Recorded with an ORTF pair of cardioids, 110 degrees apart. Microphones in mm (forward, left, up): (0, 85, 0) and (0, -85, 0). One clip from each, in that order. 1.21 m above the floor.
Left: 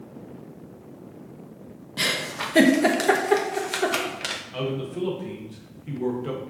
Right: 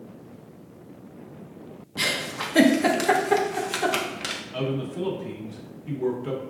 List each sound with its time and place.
2.0 s a giggle: 5° left, 0.6 m
4.5 s a man speaking: 5° left, 1.0 m